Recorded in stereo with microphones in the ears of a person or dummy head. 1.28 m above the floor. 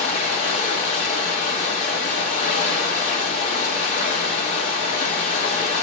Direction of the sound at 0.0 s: 45° left (ahead or behind).